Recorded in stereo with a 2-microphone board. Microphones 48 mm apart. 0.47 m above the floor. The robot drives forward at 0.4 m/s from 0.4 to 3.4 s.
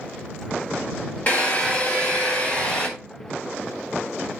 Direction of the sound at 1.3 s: 35° left (ahead or behind).